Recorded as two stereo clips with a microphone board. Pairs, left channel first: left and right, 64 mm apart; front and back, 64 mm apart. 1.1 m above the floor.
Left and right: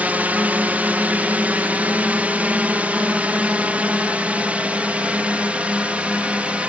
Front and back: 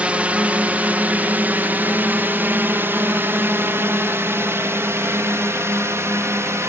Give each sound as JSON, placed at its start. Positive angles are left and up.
{"t": 0.0, "sound": "a drone", "azimuth_deg": -130}